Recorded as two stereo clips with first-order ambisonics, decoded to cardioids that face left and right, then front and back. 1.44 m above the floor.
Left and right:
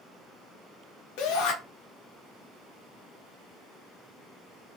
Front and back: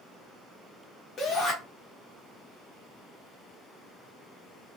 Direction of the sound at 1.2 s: 65° left.